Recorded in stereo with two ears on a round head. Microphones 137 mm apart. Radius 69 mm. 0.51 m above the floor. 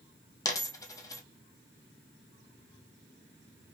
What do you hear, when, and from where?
0.5 s a dropped coin: 20° left (ahead or behind), 0.7 m